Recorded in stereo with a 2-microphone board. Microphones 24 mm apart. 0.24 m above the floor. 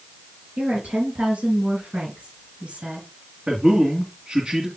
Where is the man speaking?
45° right (ahead or behind), 2.5 m.